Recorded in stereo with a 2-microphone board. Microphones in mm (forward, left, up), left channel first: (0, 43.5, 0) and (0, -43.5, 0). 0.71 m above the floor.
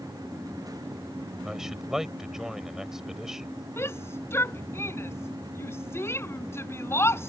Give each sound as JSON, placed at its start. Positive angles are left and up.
{"t": 1.4, "sound": "a man speaking", "side_deg": -5}
{"t": 3.8, "sound": "a shout", "side_deg": 30}